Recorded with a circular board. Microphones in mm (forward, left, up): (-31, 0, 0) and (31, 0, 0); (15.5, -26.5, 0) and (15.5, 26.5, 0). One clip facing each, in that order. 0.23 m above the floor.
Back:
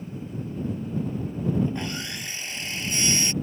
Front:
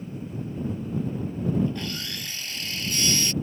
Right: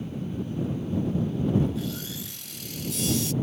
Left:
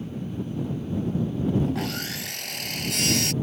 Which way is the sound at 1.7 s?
110° left.